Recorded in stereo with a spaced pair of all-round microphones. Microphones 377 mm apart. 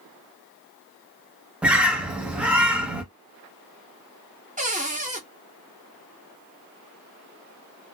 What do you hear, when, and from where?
1.6 s a bird: 5° right (ahead or behind), 0.7 m
4.6 s a cupboard door: 20° right (ahead or behind), 0.7 m